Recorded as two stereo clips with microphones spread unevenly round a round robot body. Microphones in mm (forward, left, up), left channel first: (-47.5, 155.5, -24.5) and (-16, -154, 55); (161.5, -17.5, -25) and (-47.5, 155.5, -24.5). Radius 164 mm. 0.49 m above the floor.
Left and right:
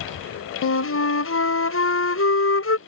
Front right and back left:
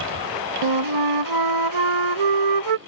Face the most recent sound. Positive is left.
turn(degrees=145)